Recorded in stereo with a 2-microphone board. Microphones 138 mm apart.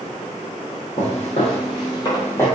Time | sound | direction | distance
1.0 | footsteps | 55° left (ahead or behind) | 1.9 m